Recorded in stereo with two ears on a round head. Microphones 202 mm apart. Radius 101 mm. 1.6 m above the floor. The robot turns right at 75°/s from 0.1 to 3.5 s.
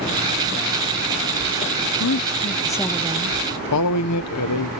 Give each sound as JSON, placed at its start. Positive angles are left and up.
{"t": 2.0, "sound": "a woman speaking", "azimuth_deg": 115, "distance_m": 0.7}
{"t": 3.7, "sound": "a man speaking", "side_deg": 80, "distance_m": 1.0}